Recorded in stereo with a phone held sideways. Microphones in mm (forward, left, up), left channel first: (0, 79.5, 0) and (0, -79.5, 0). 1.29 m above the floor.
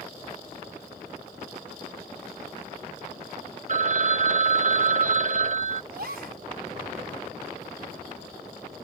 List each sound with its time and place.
3.7 s a phone ringing: 50° right (ahead or behind)
5.9 s a gasp: 80° right